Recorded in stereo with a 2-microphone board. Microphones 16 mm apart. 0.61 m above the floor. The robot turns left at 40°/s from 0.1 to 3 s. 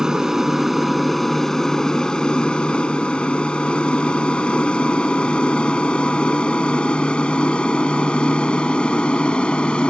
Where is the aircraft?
30° right (ahead or behind); by 9.9 s 75° left (ahead or behind).